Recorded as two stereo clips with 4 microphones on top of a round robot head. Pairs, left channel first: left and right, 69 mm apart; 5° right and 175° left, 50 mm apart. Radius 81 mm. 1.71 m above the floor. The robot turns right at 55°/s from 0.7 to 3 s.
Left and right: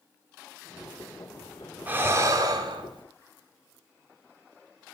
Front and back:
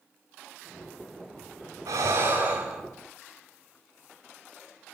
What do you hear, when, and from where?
1.9 s breathing: 155° right, 0.6 m; by 3.0 s 95° right, 0.6 m